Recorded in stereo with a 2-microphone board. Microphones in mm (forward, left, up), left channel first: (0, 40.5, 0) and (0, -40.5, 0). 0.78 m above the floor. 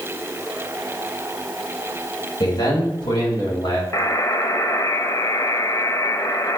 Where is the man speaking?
65° left (ahead or behind), 4 m; by 3.8 s 70° left (ahead or behind), 3 m.